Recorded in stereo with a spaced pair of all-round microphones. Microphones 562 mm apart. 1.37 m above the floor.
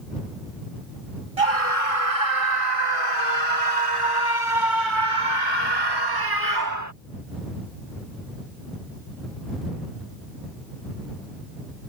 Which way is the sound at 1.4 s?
75° right (ahead or behind).